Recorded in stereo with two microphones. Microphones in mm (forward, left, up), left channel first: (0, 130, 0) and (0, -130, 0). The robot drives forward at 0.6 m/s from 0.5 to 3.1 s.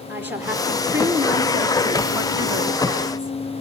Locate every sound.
0.1 s a woman speaking: 5° right (ahead or behind), 2.5 m; by 3.3 s 15° right (ahead or behind), 1.4 m